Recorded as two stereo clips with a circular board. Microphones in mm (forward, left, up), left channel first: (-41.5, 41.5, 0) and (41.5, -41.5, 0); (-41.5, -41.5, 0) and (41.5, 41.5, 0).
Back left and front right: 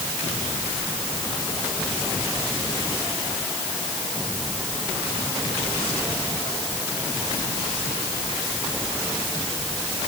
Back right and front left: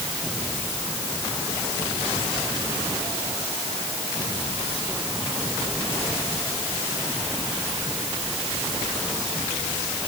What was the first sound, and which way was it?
Only background noise.